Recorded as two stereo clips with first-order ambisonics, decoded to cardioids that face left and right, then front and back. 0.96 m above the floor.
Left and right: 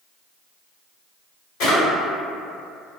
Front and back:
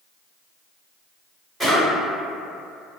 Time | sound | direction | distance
1.6 | a drawer | 90° left | 1.4 m